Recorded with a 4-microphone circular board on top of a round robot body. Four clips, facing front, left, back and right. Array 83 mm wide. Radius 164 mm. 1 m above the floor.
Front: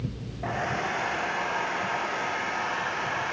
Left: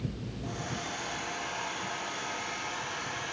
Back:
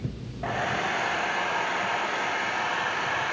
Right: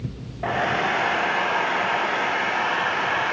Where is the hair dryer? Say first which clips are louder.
Right 17 dB, back 1 dB; 95° right, 0.9 m.